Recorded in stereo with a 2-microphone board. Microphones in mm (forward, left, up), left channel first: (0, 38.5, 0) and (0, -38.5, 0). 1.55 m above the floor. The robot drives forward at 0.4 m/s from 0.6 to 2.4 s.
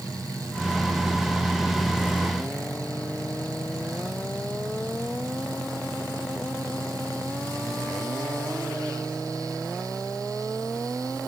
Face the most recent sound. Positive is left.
No sound to turn to.